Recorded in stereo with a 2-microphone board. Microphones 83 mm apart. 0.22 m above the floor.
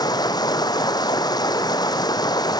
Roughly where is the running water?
Left.